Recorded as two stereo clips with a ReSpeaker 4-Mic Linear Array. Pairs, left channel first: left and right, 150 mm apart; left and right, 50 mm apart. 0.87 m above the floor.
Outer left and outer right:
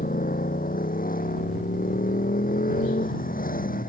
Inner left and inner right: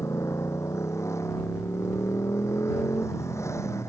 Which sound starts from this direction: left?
A motorcycle, at 0.0 s.